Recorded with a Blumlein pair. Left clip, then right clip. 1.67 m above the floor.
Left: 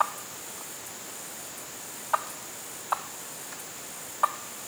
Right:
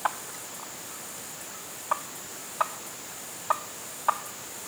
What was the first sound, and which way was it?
Only background noise.